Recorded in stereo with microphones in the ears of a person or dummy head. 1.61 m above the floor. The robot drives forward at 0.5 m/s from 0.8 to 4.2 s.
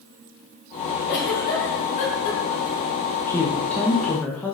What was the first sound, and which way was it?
A giggle, 50° left (ahead or behind).